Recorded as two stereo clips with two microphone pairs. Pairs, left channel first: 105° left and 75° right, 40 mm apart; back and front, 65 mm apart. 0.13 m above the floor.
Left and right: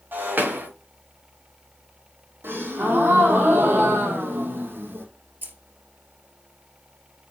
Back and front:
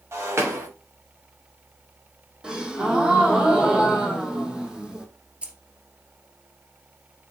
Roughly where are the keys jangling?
Right.